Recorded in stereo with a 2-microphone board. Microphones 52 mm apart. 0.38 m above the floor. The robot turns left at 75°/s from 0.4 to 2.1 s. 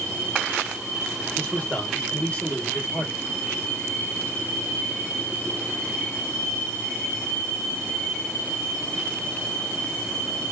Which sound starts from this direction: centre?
A man speaking, at 1.4 s.